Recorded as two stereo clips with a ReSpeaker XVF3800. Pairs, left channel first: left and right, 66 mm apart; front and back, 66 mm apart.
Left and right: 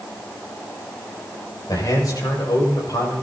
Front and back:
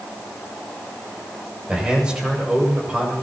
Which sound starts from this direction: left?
A man speaking, at 1.7 s.